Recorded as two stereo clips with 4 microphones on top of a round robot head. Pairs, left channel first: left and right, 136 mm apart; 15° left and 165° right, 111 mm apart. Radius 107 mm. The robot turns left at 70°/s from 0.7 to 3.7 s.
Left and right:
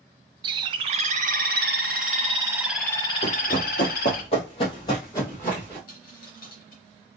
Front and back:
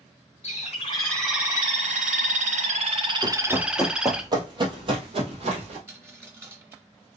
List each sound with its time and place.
0.4 s a bird: 35° right, 0.6 m; by 4.2 s 115° left, 0.6 m
3.2 s running footsteps: 145° left, 1.3 m; by 5.8 s 170° left, 2 m
5.9 s a dropped coin: 120° left, 2.5 m